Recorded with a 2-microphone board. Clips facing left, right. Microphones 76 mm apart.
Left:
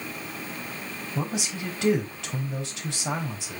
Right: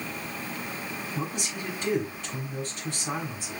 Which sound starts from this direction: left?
A man speaking, at 1.1 s.